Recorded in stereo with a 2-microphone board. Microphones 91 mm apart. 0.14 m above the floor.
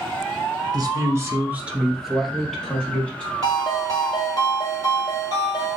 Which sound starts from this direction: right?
A man speaking, at 0.7 s.